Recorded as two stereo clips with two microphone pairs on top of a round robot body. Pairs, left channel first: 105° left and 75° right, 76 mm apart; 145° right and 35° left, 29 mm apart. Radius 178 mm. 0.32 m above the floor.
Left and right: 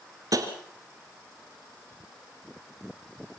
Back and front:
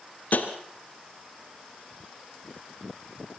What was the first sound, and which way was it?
Tapping, 120° right.